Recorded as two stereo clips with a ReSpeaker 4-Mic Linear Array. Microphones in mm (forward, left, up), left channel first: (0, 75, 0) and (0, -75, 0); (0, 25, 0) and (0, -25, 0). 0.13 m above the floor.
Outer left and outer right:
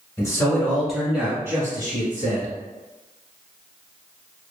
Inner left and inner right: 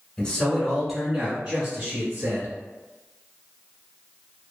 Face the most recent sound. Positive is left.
turn(degrees=-40)  # may be behind; listen again after turning